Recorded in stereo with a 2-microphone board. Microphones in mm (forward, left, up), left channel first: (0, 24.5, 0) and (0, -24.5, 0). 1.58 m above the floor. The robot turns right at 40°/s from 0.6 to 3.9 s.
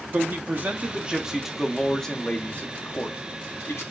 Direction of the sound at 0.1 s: 40° right.